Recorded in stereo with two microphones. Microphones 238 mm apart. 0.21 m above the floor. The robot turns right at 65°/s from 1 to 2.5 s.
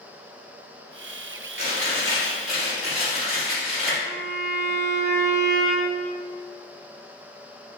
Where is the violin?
35° right (ahead or behind), 1.6 m.